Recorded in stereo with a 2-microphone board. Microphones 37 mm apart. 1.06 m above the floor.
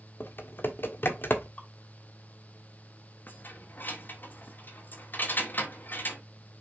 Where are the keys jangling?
60° left (ahead or behind), 1.6 m.